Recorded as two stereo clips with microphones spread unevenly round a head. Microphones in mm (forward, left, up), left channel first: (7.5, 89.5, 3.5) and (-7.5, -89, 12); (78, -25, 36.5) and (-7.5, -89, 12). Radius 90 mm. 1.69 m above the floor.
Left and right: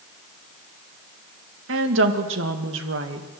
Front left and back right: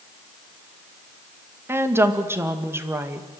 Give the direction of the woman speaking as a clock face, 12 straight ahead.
2 o'clock.